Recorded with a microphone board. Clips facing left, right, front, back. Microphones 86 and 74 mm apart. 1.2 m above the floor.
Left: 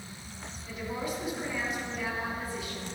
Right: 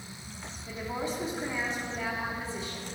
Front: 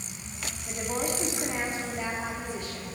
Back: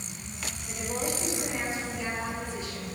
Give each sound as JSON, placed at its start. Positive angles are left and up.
{"t": 0.7, "sound": "a woman speaking", "azimuth_deg": -30, "distance_m": 3.5}